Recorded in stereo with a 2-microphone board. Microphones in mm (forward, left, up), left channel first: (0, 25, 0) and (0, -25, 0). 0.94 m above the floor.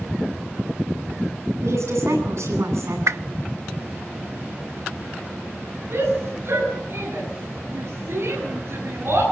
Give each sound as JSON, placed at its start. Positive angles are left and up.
{"t": 1.6, "sound": "a woman speaking", "side_deg": -70, "distance_m": 9.5}
{"t": 3.1, "sound": "a whoosh", "side_deg": -70, "distance_m": 0.8}
{"t": 5.9, "sound": "a shout", "side_deg": -55, "distance_m": 9.0}